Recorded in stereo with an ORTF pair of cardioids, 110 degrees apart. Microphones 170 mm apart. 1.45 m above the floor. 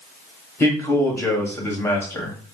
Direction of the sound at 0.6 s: 15° left.